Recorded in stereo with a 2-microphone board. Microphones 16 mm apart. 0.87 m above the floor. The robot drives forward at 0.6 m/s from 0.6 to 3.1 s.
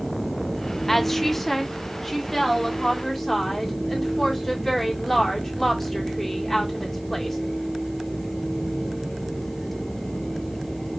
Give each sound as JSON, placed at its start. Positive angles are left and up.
{"t": 0.9, "sound": "a woman speaking", "side_deg": 15, "distance_m": 0.6}